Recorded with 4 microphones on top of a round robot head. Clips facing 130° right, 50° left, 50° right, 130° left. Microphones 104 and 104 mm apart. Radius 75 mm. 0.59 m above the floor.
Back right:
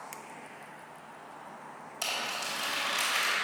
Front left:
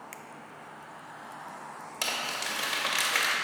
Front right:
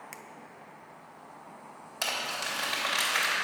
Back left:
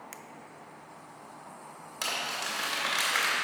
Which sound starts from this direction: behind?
A finger snap, at 0.1 s.